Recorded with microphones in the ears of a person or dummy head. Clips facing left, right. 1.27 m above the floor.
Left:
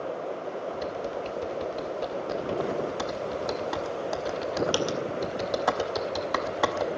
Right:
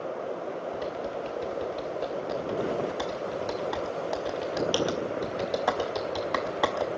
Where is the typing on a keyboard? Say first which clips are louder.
Left 1 dB; 5° left (ahead or behind), 0.7 m.